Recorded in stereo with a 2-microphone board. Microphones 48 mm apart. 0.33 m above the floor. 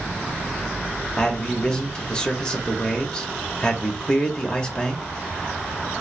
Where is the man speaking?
20° left (ahead or behind), 0.9 m.